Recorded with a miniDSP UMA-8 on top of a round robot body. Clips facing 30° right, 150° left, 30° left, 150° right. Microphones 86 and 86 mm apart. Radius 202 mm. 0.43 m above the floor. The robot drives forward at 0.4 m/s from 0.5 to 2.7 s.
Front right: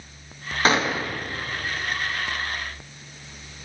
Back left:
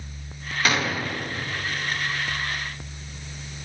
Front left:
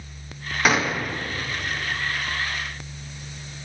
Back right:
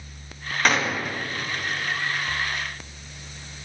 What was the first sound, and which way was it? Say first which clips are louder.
A gunshot: front right 3 dB, front left 1 dB; 50° right.